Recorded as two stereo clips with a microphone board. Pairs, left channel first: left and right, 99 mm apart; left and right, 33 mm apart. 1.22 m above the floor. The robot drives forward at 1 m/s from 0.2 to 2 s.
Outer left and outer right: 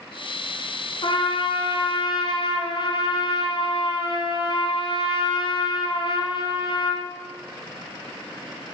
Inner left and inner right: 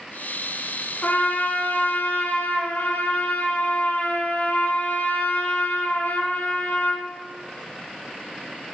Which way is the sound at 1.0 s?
55° left (ahead or behind).